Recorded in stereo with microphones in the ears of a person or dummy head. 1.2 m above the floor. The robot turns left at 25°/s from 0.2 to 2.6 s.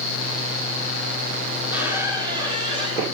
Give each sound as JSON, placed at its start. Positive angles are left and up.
{"t": 1.6, "sound": "a squeak", "side_deg": -5, "distance_m": 1.7}